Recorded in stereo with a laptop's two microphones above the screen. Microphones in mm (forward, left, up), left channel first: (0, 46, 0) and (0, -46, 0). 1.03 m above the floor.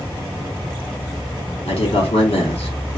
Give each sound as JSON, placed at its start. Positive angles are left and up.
{"t": 1.7, "sound": "a man speaking", "side_deg": 80, "distance_m": 2.0}